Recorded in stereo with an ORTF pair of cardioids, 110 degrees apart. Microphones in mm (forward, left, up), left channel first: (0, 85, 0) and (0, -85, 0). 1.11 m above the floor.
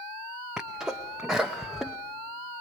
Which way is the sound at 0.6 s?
5° right.